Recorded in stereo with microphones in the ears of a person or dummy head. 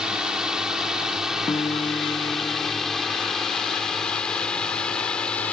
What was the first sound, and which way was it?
A drone, centre (ahead or behind).